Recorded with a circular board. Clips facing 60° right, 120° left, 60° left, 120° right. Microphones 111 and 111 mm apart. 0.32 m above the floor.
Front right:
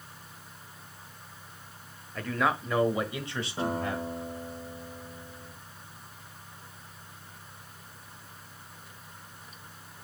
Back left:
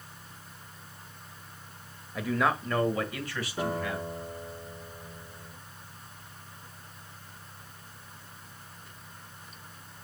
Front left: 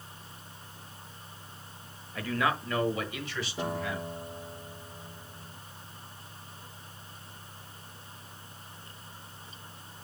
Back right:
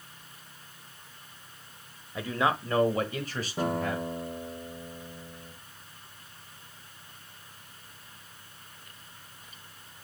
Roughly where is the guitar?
Behind right.